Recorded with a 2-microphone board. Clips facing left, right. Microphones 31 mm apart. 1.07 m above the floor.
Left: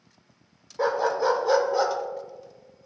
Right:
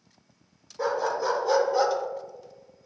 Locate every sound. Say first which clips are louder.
0.8 s a dog barking: left 3 dB; 30° left (ahead or behind), 0.9 m; by 2.0 s 5° left (ahead or behind), 0.8 m